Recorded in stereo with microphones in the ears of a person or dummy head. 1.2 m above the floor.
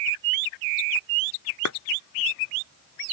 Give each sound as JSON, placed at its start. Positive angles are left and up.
{"t": 1.6, "sound": "a clap", "side_deg": 70}